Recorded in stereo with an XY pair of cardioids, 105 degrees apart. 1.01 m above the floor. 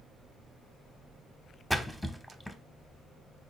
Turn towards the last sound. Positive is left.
turn(degrees=0)